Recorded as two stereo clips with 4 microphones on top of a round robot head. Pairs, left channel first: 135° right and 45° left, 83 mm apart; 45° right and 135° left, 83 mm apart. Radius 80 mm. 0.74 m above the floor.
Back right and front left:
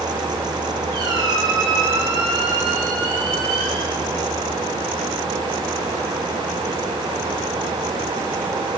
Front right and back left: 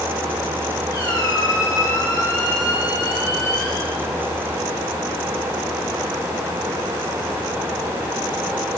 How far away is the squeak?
About 3 m.